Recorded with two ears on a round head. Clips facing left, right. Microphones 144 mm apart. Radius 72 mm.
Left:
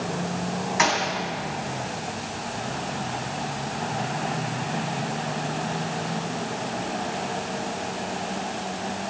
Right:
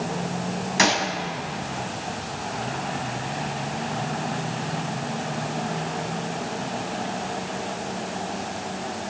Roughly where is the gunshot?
Right.